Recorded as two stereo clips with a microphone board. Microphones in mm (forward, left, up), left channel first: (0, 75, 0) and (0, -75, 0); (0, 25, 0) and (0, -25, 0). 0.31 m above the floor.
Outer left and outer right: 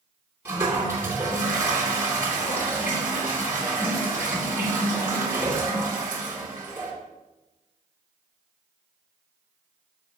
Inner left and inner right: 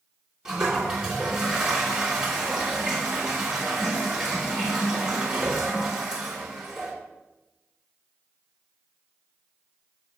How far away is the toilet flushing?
About 2.5 m.